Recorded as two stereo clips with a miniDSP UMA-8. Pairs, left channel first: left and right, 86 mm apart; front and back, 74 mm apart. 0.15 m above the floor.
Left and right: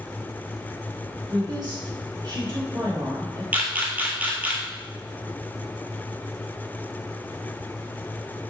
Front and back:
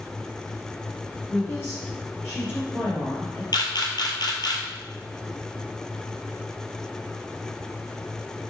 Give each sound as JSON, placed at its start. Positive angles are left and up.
{"t": 1.3, "sound": "a woman speaking", "azimuth_deg": -55, "distance_m": 2.0}
{"t": 3.5, "sound": "a camera shutter", "azimuth_deg": -20, "distance_m": 1.0}